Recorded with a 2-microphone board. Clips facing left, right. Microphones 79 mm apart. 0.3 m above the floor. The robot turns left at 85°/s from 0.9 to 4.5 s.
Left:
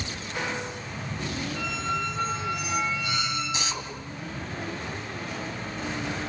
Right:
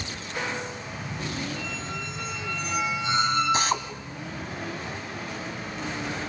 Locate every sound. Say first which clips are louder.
1.6 s a squeak: left 5 dB; 100° left, 1.6 m; by 3.9 s 100° right, 1.6 m
3.5 s a drill: right 7 dB; 45° right (ahead or behind), 2 m; by 6.3 s 40° right (ahead or behind), 2 m